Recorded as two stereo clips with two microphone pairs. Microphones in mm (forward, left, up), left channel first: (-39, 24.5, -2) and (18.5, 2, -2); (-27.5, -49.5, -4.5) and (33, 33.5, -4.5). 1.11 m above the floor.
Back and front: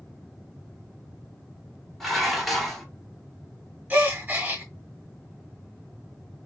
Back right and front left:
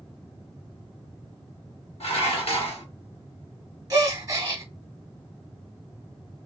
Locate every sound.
2.0 s dishes clattering: 115° right, 1.3 m
3.9 s a gasp: 25° left, 1.0 m